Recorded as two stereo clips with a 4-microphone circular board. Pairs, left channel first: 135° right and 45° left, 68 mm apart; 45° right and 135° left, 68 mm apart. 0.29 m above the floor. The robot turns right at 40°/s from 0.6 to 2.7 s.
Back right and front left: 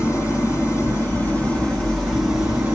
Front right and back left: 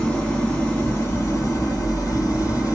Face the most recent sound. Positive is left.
turn(degrees=-20)